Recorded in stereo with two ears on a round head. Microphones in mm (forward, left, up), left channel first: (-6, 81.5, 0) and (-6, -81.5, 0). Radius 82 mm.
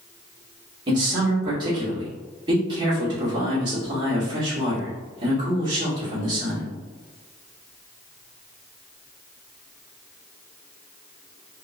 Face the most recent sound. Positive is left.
turn(degrees=-25)  # may be behind; listen again after turning